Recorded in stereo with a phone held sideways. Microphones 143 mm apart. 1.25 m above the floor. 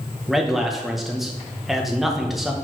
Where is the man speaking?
Centre (ahead or behind), 1.2 m.